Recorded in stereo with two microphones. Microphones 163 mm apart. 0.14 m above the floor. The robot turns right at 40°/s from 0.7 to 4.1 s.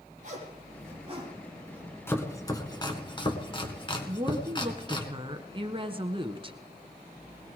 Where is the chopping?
15° left (ahead or behind), 1.9 m; by 5.1 s 30° left (ahead or behind), 1.9 m.